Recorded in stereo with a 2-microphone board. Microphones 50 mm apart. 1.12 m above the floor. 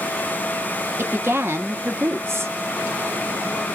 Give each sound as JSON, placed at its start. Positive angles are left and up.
{"t": 1.0, "sound": "a woman speaking", "side_deg": -50, "distance_m": 0.8}